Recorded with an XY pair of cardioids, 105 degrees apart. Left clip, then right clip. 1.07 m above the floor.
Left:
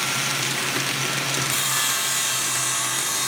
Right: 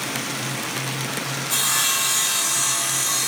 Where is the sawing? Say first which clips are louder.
Right 2 dB; 40° right, 2 m.